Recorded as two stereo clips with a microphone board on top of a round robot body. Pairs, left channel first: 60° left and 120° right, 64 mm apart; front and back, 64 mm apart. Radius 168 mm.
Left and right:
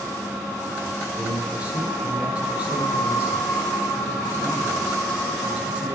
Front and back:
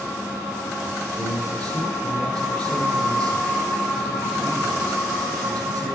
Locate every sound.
1.2 s a man speaking: 165° left, 10 m